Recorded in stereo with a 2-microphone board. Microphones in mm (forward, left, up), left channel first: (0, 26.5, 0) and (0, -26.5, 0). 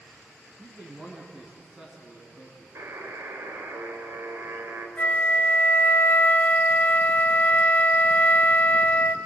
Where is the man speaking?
10° right (ahead or behind), 3.5 m.